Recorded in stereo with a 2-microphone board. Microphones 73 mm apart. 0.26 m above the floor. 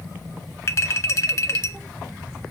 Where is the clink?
40° left (ahead or behind), 0.8 m.